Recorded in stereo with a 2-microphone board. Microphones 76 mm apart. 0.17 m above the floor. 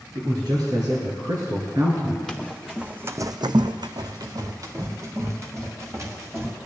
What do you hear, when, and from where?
0.1 s a man speaking: 65° right (ahead or behind), 3 m; by 2.2 s 40° right (ahead or behind), 1.7 m
2.3 s running footsteps: 5° left (ahead or behind), 1.4 m; by 6.6 s 35° right (ahead or behind), 4 m